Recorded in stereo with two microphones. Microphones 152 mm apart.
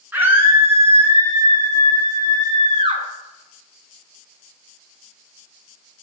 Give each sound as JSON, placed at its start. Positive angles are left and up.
{"t": 0.1, "sound": "a scream", "side_deg": -15, "distance_m": 9.5}